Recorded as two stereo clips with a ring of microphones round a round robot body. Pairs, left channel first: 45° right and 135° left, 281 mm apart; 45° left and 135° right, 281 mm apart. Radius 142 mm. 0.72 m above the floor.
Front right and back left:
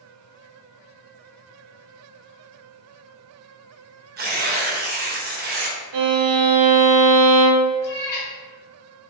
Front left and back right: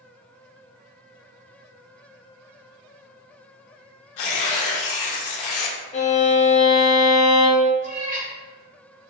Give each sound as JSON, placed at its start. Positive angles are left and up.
{"t": 4.2, "sound": "tearing paper", "azimuth_deg": 75, "distance_m": 0.6}
{"t": 5.9, "sound": "a violin", "azimuth_deg": 110, "distance_m": 0.6}
{"t": 7.8, "sound": "a cat meowing", "azimuth_deg": -70, "distance_m": 1.1}